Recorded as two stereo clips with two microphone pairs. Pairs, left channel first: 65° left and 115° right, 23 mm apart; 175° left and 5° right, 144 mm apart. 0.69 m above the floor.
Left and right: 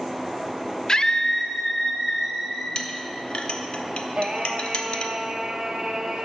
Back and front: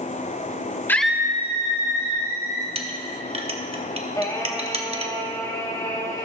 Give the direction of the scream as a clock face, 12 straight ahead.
8 o'clock.